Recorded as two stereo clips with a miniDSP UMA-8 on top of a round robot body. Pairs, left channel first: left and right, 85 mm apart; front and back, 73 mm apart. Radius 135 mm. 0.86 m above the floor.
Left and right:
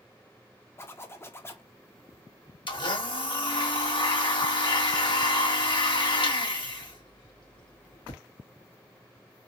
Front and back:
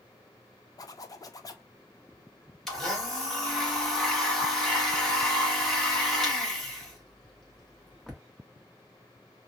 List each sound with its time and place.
0.8 s a zipper: 30° left, 0.8 m
2.7 s a blender: 85° left, 1.5 m